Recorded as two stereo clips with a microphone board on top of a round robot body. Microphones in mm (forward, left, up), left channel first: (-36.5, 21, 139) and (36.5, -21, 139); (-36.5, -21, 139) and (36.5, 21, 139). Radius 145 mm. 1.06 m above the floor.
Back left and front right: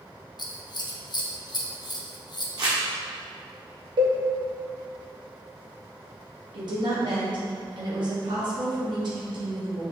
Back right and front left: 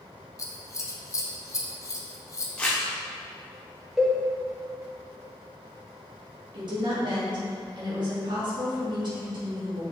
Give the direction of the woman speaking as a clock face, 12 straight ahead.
12 o'clock.